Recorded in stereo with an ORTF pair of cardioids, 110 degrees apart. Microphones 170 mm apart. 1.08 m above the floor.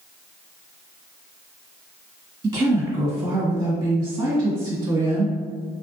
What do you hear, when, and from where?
2.4 s a woman speaking: 30° right, 1.7 m